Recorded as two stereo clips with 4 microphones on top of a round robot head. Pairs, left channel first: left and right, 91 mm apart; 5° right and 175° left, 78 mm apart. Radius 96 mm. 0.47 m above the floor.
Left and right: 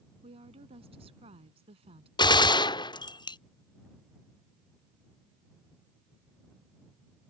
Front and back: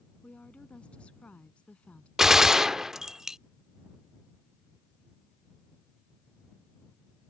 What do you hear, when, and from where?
0.2 s a woman speaking: 80° right
2.2 s a gunshot: 95° left